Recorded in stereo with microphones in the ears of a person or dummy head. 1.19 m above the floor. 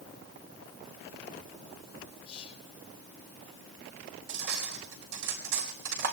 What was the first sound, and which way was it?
Whispering, 35° left (ahead or behind).